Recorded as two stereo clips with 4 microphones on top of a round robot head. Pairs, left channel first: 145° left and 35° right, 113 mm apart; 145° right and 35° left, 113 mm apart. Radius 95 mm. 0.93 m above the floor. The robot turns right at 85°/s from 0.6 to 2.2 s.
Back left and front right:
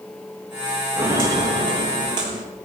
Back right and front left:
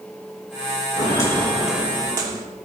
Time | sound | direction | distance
1.0 | footsteps | 105° right | 4 m